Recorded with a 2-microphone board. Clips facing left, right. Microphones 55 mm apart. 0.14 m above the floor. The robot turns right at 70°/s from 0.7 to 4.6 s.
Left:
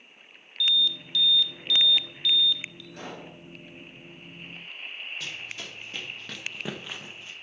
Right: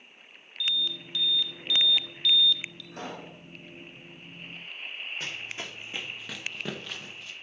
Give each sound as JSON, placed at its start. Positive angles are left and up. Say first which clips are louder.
{"t": 0.6, "sound": "an alarm", "louder": "left 5 dB", "side_deg": -25, "distance_m": 1.0}
{"t": 2.9, "sound": "a pop", "louder": "right 3 dB", "side_deg": -50, "distance_m": 7.0}
{"t": 5.2, "sound": "running footsteps", "louder": "right 1 dB", "side_deg": -40, "distance_m": 2.0}